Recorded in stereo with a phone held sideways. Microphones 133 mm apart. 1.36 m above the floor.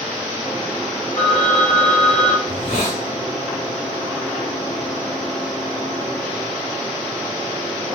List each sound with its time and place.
1.2 s a phone ringing: 65° left (ahead or behind), 1.2 m
2.5 s a hiss: 65° left (ahead or behind), 2 m